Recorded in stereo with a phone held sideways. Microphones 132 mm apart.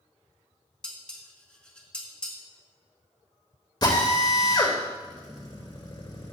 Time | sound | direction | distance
0.8 | dishes clattering | 10° left (ahead or behind) | 2 m
3.8 | a drill | 35° left (ahead or behind) | 2.5 m